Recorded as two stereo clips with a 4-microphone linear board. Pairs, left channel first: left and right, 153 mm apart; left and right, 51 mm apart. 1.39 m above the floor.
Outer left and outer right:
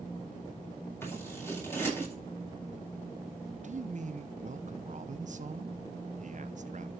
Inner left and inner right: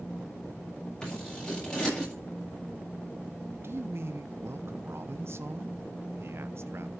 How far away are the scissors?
About 7.5 m.